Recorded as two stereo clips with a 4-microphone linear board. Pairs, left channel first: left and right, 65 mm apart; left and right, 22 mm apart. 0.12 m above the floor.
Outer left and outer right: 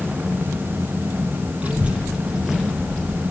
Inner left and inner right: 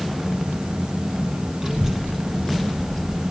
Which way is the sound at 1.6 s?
25° right (ahead or behind).